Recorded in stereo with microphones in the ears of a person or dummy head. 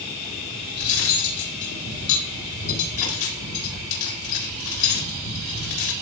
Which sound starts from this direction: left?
Cutlery clinking, at 0.7 s.